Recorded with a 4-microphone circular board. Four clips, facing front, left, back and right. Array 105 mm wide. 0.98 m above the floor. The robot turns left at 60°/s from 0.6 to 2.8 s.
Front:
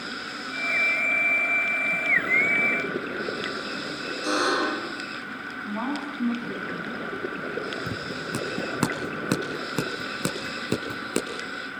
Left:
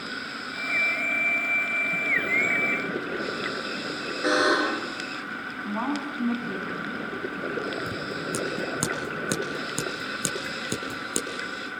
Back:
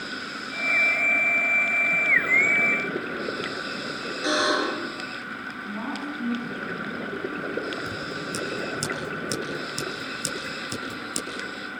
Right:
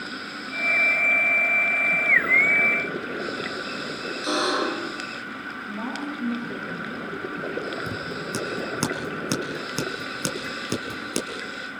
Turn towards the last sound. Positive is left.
turn(degrees=-10)